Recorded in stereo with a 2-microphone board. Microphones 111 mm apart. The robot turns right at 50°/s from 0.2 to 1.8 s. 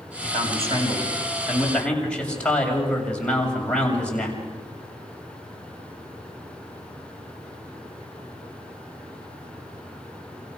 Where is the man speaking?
70° right, 7 m; by 4.4 s 10° left, 7 m.